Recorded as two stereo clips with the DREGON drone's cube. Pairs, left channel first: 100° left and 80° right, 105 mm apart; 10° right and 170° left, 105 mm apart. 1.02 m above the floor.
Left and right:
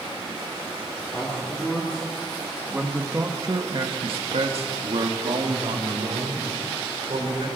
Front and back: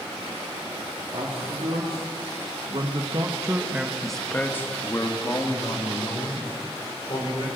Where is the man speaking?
175° left, 2 m; by 7.5 s 50° right, 3.5 m.